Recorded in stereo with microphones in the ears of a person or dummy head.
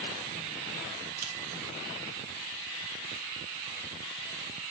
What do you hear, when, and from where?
1.2 s a camera shutter: 50° right (ahead or behind), 0.9 m